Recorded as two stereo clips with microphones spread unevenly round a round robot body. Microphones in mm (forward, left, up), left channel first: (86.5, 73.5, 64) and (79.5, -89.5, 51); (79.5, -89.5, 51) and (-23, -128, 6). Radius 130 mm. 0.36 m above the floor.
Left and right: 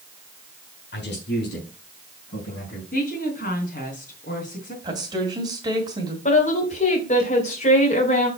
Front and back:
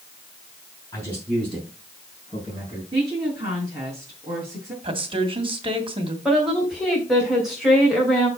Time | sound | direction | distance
0.9 | a man speaking | 105° left | 4 m
2.9 | a woman speaking | 135° left | 4 m
4.8 | a woman speaking | 160° right | 2 m
6.2 | a woman speaking | 130° left | 2.5 m